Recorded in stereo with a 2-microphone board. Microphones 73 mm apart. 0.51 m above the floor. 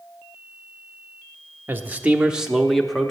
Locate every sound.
1.7 s a man speaking: 30° right (ahead or behind), 0.9 m; by 3.1 s 5° left (ahead or behind), 1.1 m